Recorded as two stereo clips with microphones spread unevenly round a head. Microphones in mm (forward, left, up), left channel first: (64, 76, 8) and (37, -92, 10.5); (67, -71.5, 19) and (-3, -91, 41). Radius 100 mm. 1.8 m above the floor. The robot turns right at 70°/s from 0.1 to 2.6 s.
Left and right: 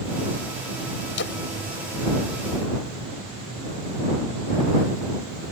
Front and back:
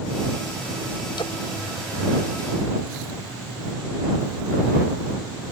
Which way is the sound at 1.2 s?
70° left.